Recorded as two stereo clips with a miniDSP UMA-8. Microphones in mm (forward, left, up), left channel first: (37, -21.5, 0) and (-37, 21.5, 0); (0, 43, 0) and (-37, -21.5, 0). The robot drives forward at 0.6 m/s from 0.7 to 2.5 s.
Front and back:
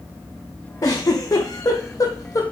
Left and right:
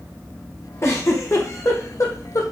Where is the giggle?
10° left, 3 m; by 2.4 s 20° left, 1.9 m.